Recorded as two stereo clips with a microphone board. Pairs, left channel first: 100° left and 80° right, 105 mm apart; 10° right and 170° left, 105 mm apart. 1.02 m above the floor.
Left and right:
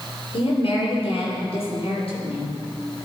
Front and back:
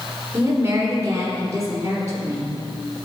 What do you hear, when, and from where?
0.3 s a woman speaking: 120° left, 3 m